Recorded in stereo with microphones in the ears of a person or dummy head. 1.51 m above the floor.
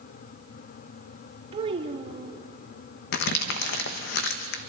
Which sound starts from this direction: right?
A child speaking, at 1.5 s.